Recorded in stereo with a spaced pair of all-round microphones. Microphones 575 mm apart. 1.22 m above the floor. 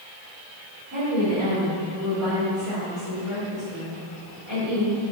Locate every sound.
0.9 s a woman speaking: 30° right (ahead or behind), 3.5 m